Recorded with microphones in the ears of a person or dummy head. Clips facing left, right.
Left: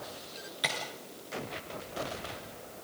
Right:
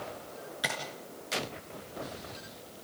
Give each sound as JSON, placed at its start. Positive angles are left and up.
{"t": 0.6, "sound": "tapping", "side_deg": -5, "distance_m": 4.0}